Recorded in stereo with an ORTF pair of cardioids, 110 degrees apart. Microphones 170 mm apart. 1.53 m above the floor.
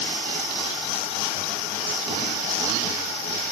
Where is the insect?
55° left.